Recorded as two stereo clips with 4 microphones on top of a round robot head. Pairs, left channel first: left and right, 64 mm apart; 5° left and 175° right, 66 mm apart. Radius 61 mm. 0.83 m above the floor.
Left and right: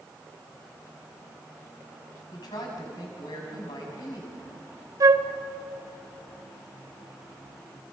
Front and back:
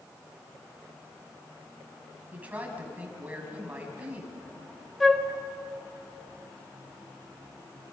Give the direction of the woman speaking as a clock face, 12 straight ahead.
8 o'clock.